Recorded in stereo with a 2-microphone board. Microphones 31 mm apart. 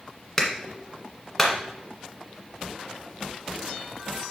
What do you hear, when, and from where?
0.4 s a clap: 10° left (ahead or behind), 1.5 m